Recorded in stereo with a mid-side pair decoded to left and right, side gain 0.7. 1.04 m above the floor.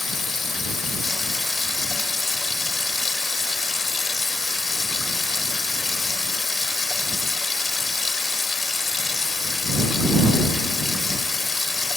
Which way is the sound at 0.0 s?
20° left.